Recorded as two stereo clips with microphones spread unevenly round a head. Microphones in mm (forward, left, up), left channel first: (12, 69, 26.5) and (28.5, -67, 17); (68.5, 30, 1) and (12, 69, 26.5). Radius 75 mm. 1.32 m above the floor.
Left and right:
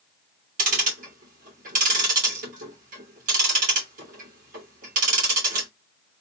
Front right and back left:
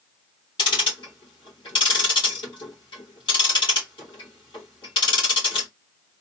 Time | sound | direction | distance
0.6 | ticking | 60° right | 2 m